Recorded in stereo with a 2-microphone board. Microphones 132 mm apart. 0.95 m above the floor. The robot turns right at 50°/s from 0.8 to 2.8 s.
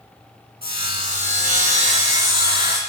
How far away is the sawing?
About 3.5 m.